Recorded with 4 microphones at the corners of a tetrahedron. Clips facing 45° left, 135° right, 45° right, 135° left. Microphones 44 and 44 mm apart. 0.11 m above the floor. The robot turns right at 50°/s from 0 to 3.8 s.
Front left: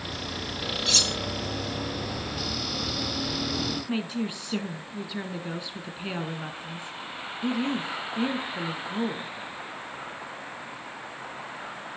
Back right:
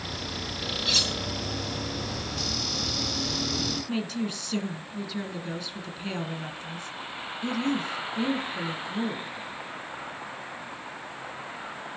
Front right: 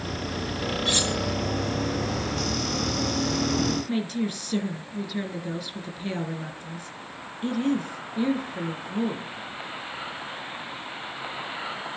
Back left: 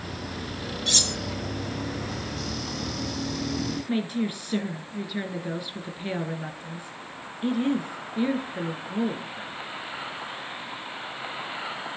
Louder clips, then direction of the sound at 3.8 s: Front left 1 dB, even; 85° left.